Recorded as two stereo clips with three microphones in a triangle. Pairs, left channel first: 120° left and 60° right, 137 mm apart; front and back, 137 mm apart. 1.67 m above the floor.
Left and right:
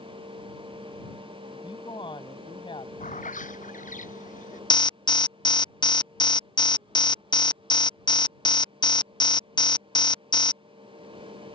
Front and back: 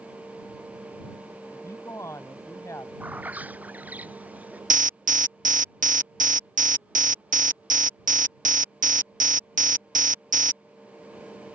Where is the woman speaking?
70° left.